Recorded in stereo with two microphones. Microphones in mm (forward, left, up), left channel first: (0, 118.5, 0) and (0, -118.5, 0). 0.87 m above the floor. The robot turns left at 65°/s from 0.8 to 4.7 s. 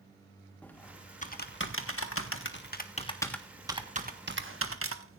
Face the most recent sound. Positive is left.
turn(degrees=-65)  # may be behind; listen again after turning